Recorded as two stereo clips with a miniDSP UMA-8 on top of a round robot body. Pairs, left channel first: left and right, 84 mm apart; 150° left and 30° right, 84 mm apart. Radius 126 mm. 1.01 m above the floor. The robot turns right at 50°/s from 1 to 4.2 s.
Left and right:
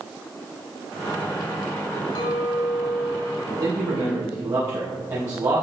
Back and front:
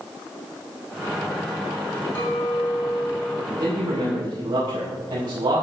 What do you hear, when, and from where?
2.1 s a clink: 80° left, 3.5 m; by 3.4 s 145° left, 3.5 m
3.5 s a man speaking: 90° right, 3.5 m; by 5.6 s 55° right, 3.5 m